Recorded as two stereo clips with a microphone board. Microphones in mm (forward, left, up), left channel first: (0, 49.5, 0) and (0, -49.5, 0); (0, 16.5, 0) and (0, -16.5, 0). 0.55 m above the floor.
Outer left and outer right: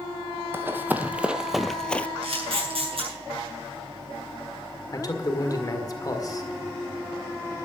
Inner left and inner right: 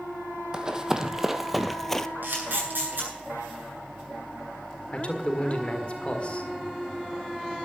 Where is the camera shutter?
65° right (ahead or behind), 9 m.